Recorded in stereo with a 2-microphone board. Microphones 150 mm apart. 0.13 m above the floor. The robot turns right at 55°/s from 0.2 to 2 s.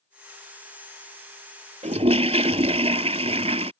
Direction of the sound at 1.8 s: 50° right (ahead or behind).